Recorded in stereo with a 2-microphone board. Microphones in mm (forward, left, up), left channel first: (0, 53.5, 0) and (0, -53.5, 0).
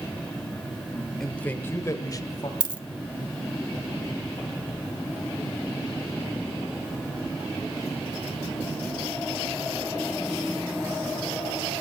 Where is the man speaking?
5° left (ahead or behind), 0.8 m; by 2.5 s 40° left (ahead or behind), 1.5 m.